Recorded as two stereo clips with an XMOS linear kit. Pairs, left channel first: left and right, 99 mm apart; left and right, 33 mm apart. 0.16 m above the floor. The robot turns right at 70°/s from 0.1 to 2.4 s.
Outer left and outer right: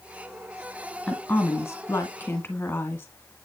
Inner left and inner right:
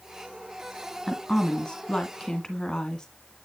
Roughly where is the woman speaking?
Centre.